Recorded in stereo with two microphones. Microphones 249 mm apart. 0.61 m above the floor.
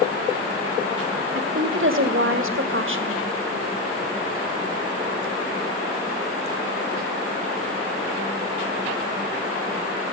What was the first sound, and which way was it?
A woman speaking, 55° right (ahead or behind).